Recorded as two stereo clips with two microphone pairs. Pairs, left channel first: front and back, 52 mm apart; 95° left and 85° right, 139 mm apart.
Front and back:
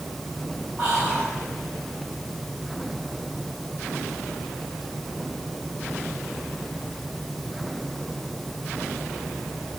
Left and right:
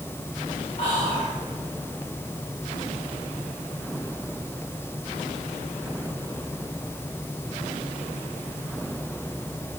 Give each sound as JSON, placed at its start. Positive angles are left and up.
{"t": 0.8, "sound": "whispering", "azimuth_deg": 105, "distance_m": 2.5}